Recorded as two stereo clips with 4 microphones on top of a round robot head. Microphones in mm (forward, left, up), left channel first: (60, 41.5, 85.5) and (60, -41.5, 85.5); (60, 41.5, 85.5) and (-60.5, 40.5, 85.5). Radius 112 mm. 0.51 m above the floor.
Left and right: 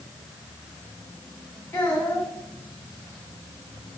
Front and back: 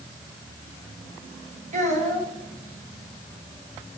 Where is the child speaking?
165° left, 2.5 m.